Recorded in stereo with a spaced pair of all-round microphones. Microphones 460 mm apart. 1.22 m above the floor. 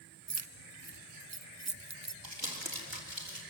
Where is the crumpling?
70° right (ahead or behind), 4 m.